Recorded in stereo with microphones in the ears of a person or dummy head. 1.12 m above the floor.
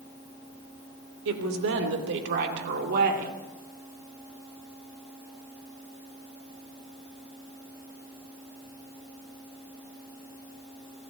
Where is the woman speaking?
70° right (ahead or behind), 3 m; by 3.4 s 50° right (ahead or behind), 2.0 m.